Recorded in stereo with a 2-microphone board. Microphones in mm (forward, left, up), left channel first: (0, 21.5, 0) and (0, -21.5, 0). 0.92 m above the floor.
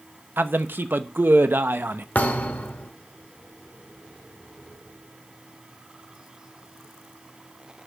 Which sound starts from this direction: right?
A man speaking, at 0.4 s.